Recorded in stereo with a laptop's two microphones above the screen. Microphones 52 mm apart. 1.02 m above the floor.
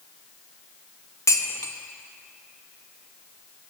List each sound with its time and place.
1.3 s dishes clattering: 70° left (ahead or behind), 0.5 m